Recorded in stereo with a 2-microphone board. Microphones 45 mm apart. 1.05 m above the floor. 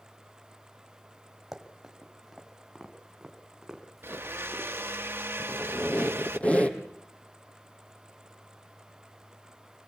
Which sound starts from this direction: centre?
Running footsteps, at 1.5 s.